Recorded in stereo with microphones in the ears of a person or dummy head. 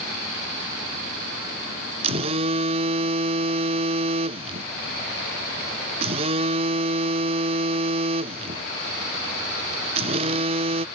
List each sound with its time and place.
2.0 s a phone buzzing: 30° right (ahead or behind)